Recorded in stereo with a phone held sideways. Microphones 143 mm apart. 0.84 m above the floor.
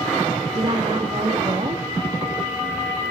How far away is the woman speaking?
About 1.7 m.